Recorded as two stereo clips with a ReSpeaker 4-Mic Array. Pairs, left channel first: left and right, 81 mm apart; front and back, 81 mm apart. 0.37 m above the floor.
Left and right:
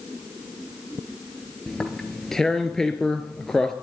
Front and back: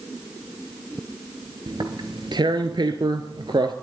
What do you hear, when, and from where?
1.7 s tearing paper: 175° left, 1.1 m